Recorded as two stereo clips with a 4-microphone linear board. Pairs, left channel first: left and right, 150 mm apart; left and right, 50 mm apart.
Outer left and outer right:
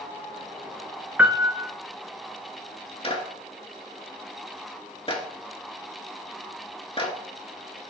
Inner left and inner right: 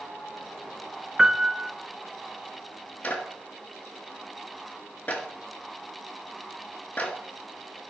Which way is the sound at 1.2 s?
10° right (ahead or behind).